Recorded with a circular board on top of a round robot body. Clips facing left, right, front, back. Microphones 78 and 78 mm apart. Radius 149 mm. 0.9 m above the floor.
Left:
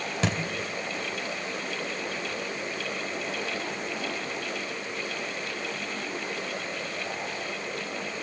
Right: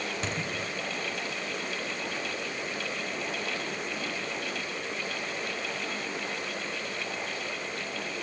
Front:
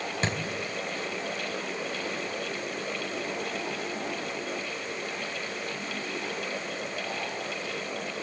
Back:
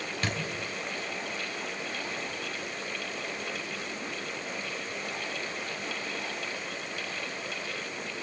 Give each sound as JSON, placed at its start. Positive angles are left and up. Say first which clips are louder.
{"t": 0.2, "sound": "a thud", "louder": "left 9 dB, front 2 dB", "azimuth_deg": 65, "distance_m": 2.5}